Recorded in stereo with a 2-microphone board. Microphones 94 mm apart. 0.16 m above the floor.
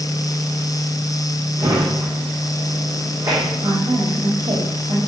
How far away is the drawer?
About 5.5 m.